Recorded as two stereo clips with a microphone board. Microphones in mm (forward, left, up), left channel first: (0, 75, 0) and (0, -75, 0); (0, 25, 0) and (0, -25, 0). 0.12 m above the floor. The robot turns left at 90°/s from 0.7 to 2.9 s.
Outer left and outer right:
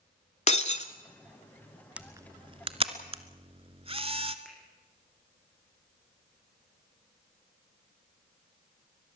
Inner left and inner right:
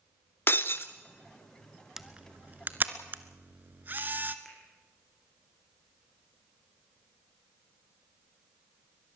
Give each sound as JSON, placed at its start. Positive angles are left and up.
{"t": 0.5, "sound": "breaking glass", "side_deg": 45, "distance_m": 0.7}
{"t": 2.0, "sound": "a camera shutter", "side_deg": -10, "distance_m": 0.9}
{"t": 4.5, "sound": "a finger snap", "side_deg": 5, "distance_m": 5.5}